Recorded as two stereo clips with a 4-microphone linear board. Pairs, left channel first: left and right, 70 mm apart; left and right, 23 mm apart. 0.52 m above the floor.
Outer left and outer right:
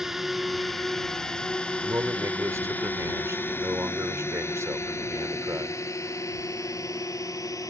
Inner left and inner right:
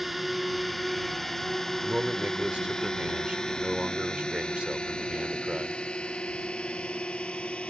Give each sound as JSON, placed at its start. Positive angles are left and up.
{"t": 0.0, "sound": "a drone", "side_deg": -5}
{"t": 1.8, "sound": "a man speaking", "side_deg": -50}